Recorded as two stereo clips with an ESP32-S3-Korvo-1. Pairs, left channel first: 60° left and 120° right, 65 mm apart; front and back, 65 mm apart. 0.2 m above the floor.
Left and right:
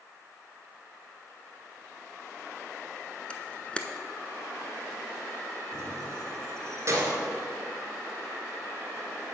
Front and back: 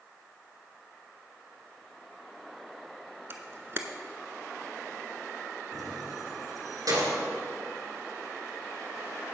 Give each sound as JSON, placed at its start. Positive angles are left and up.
{"t": 3.3, "sound": "a camera shutter", "azimuth_deg": 130, "distance_m": 0.6}
{"t": 5.7, "sound": "keys jangling", "azimuth_deg": -160, "distance_m": 2.0}